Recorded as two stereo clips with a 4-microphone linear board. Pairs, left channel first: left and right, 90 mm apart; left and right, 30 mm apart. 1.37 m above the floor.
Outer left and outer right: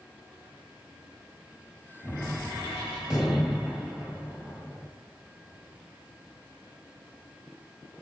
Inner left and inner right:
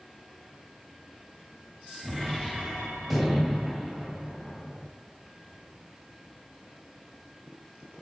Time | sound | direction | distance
2.0 | a gunshot | 10° right (ahead or behind) | 2 m